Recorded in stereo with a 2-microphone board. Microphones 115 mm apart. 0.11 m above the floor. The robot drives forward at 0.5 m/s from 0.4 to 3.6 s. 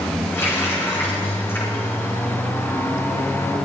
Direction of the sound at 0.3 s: 25° left (ahead or behind).